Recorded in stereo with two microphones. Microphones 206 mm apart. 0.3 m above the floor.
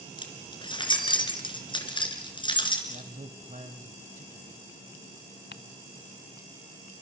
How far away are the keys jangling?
About 2.5 m.